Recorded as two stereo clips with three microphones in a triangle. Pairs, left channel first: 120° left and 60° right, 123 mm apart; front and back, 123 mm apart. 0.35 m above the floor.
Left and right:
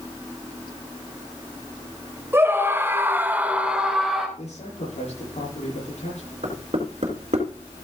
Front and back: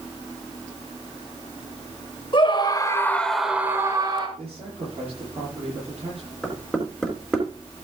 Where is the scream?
Straight ahead, 1.9 m; by 4.3 s 150° right, 1.9 m.